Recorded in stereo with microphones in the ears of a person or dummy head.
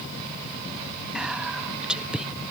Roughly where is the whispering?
Centre.